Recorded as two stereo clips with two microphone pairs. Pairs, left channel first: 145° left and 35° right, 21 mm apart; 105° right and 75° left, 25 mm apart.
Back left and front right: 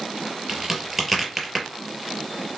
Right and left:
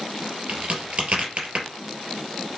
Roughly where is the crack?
Ahead left.